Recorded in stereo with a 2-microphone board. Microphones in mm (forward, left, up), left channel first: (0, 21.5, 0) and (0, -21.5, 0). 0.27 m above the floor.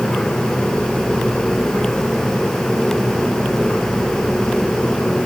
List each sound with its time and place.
Only background noise.